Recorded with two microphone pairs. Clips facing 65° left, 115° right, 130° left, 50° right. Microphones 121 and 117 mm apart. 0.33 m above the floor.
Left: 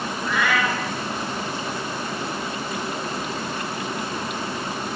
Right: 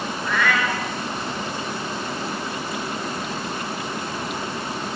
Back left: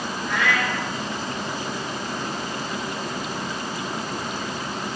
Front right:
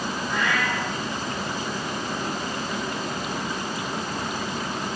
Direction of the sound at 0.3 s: 145° left.